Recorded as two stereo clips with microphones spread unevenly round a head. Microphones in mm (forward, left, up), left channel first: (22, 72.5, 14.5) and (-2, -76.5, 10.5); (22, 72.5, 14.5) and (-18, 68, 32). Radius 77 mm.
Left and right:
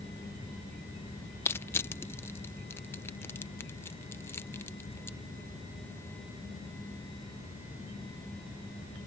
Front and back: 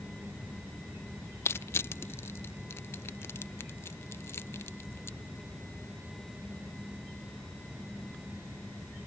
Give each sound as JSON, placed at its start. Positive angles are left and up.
{"t": 1.4, "sound": "crushing", "azimuth_deg": 20}